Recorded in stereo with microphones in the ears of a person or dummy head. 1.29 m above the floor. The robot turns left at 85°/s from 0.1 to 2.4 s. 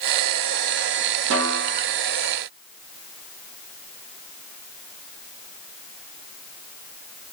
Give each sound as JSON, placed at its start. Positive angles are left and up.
{"t": 1.3, "sound": "a snare drum", "azimuth_deg": -105, "distance_m": 0.6}